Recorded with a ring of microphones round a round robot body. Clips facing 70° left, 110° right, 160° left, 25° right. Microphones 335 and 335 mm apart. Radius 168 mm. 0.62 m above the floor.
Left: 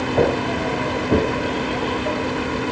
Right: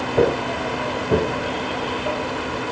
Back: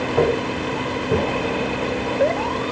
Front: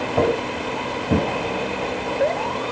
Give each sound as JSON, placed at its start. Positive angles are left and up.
{"t": 0.2, "sound": "footsteps", "azimuth_deg": -30, "distance_m": 4.0}